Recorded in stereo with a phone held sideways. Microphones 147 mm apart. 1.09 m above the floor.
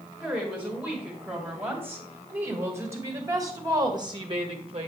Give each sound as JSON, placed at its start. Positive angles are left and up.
{"t": 0.2, "sound": "a woman speaking", "side_deg": -5, "distance_m": 4.0}